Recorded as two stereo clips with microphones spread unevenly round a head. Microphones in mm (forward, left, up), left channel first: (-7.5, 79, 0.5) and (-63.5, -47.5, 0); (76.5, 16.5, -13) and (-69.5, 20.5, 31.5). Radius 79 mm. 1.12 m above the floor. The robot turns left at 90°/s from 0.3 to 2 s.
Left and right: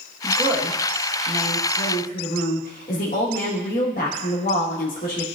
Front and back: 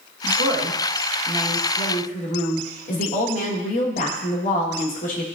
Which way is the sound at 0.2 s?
175° left.